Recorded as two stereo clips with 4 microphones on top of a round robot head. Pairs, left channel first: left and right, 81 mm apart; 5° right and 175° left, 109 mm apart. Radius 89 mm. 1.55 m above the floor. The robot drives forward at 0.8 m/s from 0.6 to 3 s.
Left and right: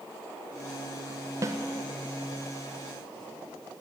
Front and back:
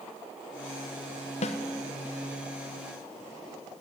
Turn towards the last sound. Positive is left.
turn(degrees=-75)